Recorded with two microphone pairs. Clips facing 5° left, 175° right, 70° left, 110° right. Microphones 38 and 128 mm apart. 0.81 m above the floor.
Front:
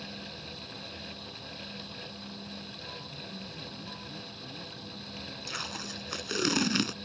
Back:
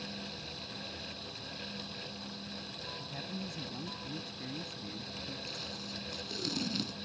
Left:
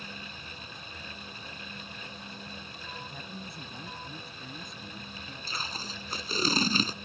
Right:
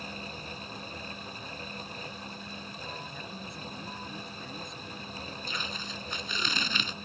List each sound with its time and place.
3.0 s a man speaking: 155° left
5.5 s tape being pulled: 10° left